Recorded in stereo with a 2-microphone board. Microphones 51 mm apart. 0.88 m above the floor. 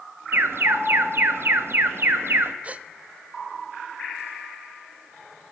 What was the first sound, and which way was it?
An alarm, 55° right (ahead or behind).